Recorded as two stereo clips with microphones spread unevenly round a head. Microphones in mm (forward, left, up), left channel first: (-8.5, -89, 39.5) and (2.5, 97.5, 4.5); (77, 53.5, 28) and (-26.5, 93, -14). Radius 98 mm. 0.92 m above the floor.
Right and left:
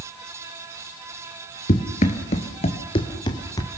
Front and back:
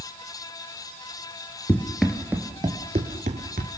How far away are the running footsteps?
About 1.2 m.